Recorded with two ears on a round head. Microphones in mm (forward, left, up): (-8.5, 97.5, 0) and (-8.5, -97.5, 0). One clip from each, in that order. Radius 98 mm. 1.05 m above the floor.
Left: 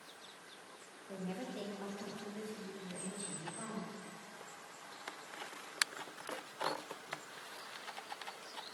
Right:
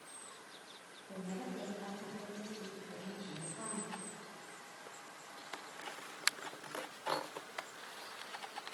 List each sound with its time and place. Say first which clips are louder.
1.1 s a woman speaking: left 1 dB; 65° left (ahead or behind), 1.3 m; by 4.0 s 40° left (ahead or behind), 2.5 m